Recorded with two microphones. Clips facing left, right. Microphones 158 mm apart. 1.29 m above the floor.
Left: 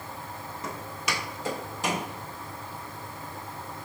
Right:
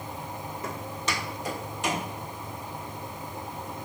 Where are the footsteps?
10° right (ahead or behind), 1.4 m; by 2.0 s 45° left (ahead or behind), 2 m.